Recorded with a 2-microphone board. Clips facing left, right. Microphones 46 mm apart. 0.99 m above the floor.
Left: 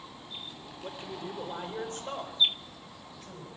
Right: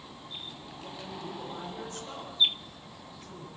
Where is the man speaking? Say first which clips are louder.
Left 2 dB; 35° left (ahead or behind), 3.5 m; by 3.5 s 45° left (ahead or behind), 6.5 m.